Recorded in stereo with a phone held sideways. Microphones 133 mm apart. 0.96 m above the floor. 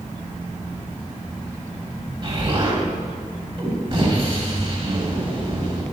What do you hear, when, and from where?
2.2 s an explosion: 40° right (ahead or behind), 3 m